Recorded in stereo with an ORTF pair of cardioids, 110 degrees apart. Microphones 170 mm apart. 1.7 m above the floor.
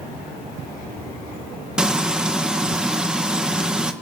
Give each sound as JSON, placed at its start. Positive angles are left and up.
{"t": 1.8, "sound": "frying", "azimuth_deg": -5, "distance_m": 1.7}